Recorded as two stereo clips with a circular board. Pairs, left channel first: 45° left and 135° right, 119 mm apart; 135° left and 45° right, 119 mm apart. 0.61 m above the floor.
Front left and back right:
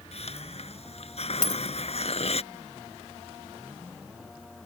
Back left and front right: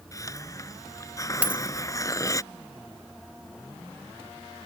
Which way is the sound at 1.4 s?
35° left.